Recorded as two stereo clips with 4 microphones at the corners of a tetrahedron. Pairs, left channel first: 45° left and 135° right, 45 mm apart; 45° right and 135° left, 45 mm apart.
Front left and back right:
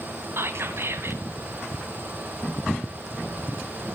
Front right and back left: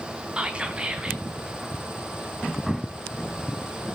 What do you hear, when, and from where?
0.4 s whispering: 160° right, 2.5 m